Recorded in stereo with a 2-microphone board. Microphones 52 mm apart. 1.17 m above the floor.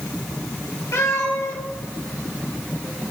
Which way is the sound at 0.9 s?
70° left (ahead or behind).